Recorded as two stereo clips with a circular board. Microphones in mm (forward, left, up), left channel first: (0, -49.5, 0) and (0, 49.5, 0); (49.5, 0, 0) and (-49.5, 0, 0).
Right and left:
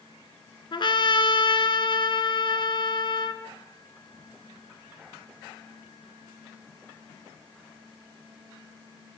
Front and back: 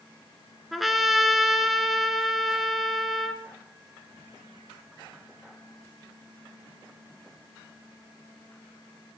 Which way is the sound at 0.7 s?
90° right.